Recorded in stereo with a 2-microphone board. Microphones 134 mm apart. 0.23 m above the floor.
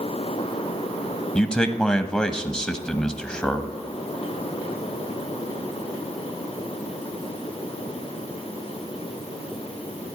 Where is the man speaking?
5° left (ahead or behind), 1.0 m.